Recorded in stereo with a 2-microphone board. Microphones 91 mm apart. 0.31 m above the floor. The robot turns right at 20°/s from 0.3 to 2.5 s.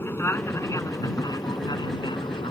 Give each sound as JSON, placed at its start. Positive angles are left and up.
{"t": 0.0, "sound": "an aircraft", "azimuth_deg": 30}